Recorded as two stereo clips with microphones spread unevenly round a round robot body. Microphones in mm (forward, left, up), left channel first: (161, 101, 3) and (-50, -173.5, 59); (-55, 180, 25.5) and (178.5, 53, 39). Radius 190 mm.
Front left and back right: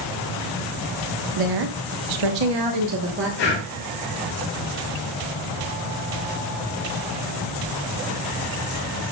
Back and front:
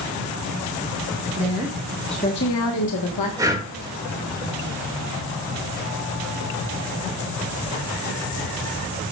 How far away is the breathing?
About 2.5 m.